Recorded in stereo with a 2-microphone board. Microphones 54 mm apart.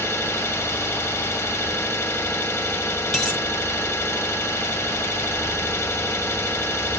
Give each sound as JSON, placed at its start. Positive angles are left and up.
{"t": 0.0, "sound": "an engine running", "side_deg": 50, "distance_m": 0.9}
{"t": 3.1, "sound": "a dropped coin", "side_deg": 0, "distance_m": 0.9}